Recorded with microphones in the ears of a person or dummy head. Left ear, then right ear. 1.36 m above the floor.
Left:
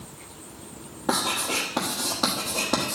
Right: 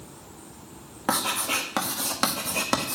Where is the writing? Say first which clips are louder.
Even; 60° right (ahead or behind), 1.2 m.